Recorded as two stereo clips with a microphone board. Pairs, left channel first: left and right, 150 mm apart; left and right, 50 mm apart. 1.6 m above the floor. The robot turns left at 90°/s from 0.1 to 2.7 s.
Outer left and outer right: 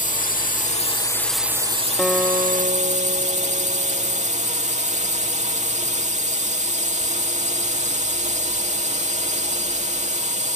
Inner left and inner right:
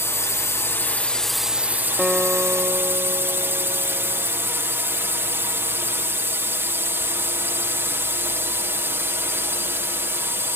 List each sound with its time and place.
0.0 s a drone: 115° left; by 10.6 s 120° right
2.0 s a guitar: 5° left; by 4.3 s 60° right